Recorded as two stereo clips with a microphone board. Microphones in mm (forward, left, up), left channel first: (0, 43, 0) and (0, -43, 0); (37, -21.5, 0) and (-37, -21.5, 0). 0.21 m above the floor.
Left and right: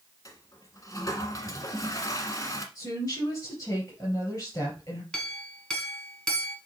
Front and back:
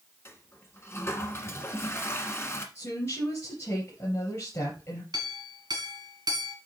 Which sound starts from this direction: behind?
A clink, at 5.1 s.